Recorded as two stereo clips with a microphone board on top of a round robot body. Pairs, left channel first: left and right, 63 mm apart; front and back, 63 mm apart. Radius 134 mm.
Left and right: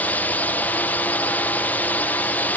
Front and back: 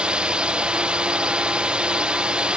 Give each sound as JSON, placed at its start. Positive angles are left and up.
{"t": 0.0, "sound": "a drone", "azimuth_deg": 120}